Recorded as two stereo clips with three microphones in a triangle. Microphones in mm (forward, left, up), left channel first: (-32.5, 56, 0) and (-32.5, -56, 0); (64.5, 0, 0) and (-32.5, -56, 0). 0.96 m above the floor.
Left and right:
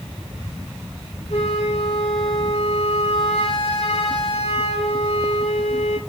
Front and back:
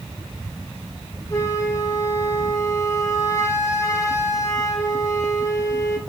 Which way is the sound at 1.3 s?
85° left.